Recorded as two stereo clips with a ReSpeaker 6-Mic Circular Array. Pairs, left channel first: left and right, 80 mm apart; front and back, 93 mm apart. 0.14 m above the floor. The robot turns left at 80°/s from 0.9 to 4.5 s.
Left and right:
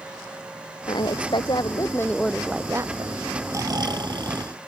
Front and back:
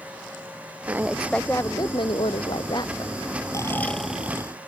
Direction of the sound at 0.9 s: 115° left.